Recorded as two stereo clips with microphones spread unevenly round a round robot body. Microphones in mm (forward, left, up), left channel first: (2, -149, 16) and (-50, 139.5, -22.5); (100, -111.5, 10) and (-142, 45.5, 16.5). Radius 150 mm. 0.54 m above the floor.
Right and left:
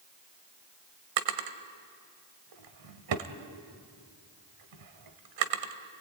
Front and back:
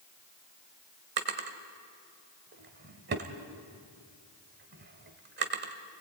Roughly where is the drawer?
Left.